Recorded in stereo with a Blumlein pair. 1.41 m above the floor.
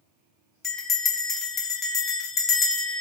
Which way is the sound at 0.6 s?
20° left.